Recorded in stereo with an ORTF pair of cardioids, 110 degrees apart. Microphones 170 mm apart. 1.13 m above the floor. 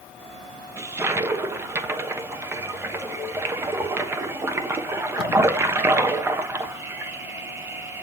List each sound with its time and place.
0.8 s a toilet flushing: 15° right, 1.1 m